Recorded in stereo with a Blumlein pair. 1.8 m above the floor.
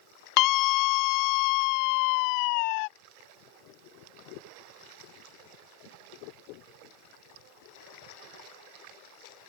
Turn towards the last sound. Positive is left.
turn(degrees=45)